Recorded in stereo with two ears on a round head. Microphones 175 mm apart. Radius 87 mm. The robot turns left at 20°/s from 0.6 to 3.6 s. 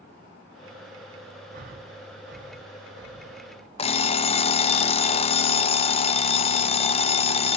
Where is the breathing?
45° right (ahead or behind), 4.5 m; by 3.4 s 80° right, 4.5 m.